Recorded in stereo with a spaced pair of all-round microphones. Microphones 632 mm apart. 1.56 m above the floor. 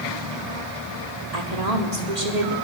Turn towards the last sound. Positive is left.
turn(degrees=-80)